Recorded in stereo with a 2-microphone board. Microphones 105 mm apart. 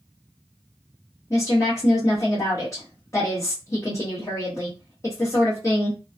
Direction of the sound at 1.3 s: 30° left (ahead or behind).